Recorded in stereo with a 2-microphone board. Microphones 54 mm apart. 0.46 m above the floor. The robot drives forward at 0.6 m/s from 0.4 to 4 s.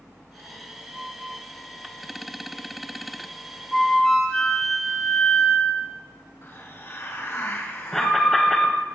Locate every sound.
3.7 s a flute: 5° left (ahead or behind), 1.4 m
6.4 s a hiss: 55° left (ahead or behind), 2 m
7.9 s an alarm: 5° left (ahead or behind), 1.4 m